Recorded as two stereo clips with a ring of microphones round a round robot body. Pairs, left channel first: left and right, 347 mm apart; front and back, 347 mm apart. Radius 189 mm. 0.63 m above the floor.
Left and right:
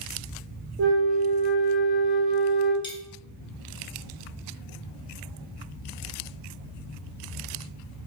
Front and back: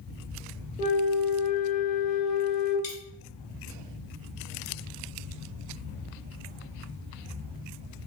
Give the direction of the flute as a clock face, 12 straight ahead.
2 o'clock.